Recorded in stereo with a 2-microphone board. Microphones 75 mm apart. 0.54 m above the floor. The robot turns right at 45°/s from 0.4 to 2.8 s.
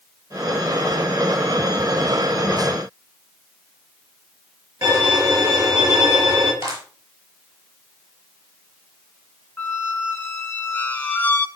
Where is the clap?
55° right (ahead or behind), 7.5 m.